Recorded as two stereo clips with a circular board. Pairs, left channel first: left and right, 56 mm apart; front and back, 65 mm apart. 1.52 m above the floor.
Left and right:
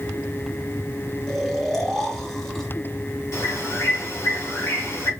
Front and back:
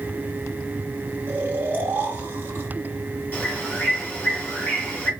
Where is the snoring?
165° left, 1.3 m.